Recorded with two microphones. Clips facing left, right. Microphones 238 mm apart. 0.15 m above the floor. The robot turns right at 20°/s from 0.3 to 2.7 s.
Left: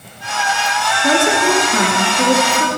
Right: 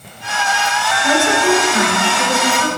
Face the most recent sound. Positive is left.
turn(degrees=75)